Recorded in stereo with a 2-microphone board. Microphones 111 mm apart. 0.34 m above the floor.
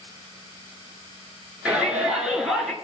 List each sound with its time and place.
1.6 s a shout: 10° right (ahead or behind), 4.5 m; by 2.7 s centre (ahead or behind), 4 m